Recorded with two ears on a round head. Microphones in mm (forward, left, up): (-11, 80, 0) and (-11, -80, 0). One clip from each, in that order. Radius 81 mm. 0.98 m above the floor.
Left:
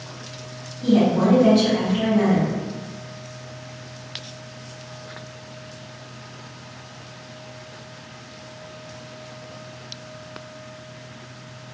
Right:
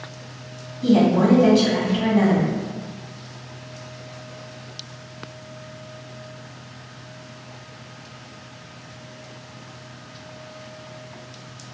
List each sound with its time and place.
0.8 s a woman speaking: 50° right (ahead or behind), 1.4 m